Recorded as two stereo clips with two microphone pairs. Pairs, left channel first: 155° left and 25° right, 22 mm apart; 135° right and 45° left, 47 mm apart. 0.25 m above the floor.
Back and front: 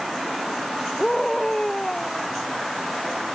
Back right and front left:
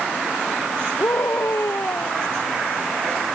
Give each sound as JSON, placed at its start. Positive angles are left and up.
{"t": 1.0, "sound": "a scream", "azimuth_deg": -130}